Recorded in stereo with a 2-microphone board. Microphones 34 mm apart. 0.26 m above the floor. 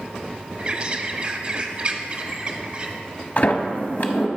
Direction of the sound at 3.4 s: 50° left (ahead or behind).